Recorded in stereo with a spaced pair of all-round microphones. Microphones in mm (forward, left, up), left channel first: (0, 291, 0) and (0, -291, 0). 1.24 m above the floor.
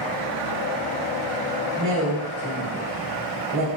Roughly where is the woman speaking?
Right.